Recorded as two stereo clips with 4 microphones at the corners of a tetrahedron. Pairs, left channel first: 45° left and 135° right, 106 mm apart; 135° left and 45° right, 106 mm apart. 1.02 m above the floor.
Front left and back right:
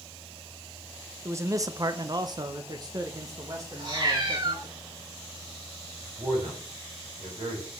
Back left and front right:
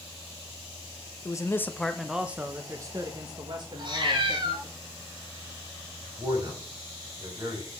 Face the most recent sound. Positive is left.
turn(degrees=-100)